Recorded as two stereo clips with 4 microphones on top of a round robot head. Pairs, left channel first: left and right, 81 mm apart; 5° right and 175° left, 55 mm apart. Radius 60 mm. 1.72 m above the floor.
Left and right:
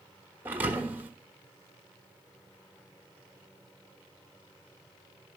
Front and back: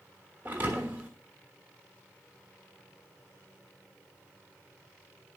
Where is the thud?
140° right, 1.1 m.